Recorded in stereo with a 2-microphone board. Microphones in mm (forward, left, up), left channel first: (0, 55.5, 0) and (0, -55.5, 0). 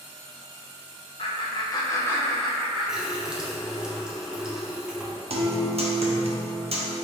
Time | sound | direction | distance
1.2 | laughter | 50° left (ahead or behind) | 0.8 m
2.9 | a running tap | 5° right (ahead or behind) | 0.5 m
5.3 | a guitar | 65° right (ahead or behind) | 0.5 m